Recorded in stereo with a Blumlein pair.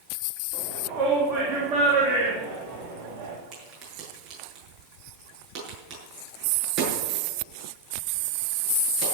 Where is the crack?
35° right, 8.5 m.